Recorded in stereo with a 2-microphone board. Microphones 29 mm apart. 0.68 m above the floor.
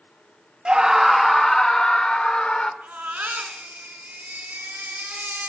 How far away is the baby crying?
About 4 m.